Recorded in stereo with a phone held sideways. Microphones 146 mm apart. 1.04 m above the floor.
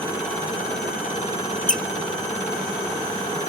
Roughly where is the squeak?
Left.